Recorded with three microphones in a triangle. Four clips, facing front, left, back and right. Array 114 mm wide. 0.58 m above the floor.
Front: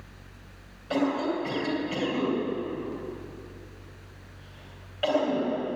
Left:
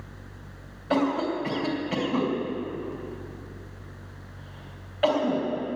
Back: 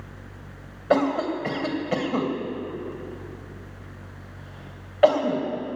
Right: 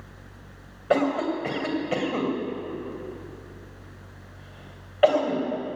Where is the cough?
145° right, 2.5 m.